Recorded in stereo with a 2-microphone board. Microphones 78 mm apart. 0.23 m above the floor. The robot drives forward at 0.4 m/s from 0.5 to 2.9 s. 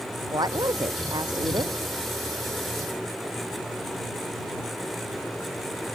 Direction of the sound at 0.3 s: 60° right (ahead or behind).